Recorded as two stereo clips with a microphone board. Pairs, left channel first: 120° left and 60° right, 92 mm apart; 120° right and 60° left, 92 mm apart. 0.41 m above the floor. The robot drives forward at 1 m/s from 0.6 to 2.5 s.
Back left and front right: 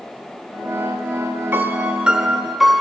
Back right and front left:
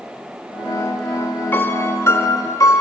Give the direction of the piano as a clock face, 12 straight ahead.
3 o'clock.